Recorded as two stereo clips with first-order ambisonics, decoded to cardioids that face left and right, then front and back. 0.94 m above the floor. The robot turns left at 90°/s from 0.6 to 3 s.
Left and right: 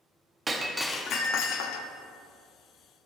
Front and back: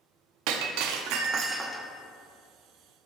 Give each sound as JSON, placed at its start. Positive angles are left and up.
{"t": 0.5, "sound": "breaking glass", "azimuth_deg": -165, "distance_m": 0.7}